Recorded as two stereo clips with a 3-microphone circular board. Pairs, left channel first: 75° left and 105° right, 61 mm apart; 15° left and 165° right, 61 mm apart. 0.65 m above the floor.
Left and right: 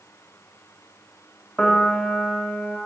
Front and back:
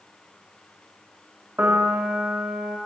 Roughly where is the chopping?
No chopping in this recording.